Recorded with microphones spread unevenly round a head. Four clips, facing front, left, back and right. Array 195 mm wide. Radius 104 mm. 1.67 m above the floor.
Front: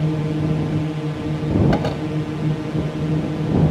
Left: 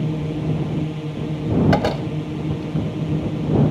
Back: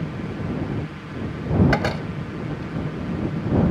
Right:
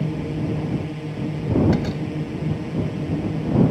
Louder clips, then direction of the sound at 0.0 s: Left 1 dB, front 8 dB; 15° left.